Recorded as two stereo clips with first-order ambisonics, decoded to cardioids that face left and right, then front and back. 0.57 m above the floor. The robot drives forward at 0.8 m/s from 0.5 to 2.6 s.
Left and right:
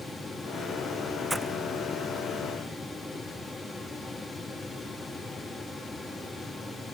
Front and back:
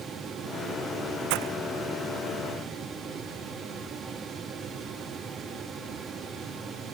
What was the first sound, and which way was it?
Breaking glass, 175° right.